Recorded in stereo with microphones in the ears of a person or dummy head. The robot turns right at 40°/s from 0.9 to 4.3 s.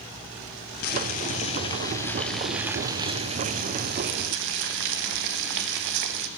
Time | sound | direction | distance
0.8 | boiling | 120° left | 1.3 m